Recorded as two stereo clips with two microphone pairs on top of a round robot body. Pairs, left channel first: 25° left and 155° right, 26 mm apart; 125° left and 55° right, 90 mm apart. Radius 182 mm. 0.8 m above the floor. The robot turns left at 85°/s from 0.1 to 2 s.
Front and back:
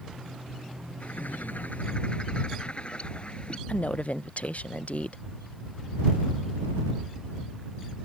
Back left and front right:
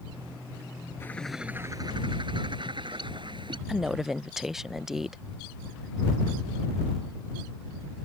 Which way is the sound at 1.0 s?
65° left.